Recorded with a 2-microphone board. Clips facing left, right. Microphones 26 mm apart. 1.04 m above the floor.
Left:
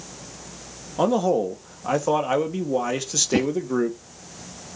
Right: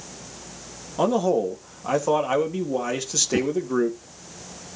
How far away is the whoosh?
About 1.6 m.